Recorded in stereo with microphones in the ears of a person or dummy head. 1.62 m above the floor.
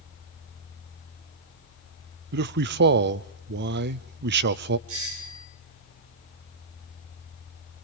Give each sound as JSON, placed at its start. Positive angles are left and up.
{"t": 2.3, "sound": "a man speaking", "side_deg": -55, "distance_m": 0.5}
{"t": 4.9, "sound": "a doorbell", "side_deg": -75, "distance_m": 4.0}